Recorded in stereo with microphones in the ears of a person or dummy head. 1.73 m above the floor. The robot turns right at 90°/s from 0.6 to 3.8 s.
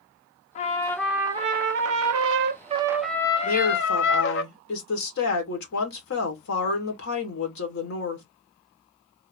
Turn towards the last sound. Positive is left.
turn(degrees=80)